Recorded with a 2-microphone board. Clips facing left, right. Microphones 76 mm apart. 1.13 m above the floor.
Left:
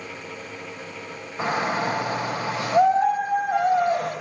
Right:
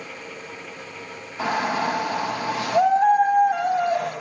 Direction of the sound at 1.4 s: 35° left (ahead or behind).